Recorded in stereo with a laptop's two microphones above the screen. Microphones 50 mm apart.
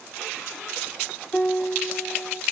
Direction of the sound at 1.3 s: 15° left (ahead or behind).